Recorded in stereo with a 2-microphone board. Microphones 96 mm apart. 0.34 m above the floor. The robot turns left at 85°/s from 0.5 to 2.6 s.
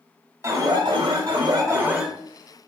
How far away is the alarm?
About 0.9 m.